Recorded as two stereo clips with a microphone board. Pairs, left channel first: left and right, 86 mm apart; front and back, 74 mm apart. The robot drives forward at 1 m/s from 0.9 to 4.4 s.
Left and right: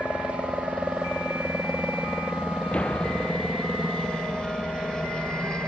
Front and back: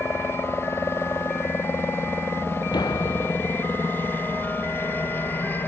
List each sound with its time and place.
0.0 s a helicopter: 15° left; by 5.7 s 20° left
2.7 s a door slam: 10° left; by 3.7 s 15° left